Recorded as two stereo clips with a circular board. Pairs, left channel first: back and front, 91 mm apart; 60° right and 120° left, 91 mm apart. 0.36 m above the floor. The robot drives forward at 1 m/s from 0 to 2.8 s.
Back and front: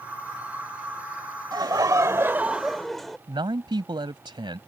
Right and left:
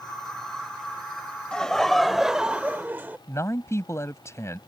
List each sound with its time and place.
1.5 s laughter: 15° left; by 3.2 s 100° left
3.3 s a man speaking: 10° right